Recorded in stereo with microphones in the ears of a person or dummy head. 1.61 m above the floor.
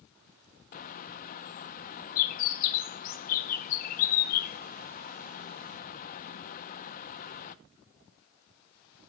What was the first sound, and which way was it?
A bird, 40° left (ahead or behind).